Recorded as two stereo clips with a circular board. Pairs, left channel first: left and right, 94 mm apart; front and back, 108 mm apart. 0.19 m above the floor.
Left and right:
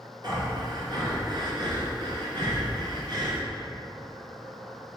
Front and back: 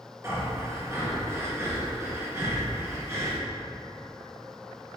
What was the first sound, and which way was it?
Breathing, 120° right.